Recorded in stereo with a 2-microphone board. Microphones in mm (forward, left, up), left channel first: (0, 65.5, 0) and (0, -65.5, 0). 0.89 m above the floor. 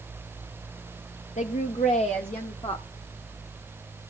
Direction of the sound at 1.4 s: 65° left (ahead or behind).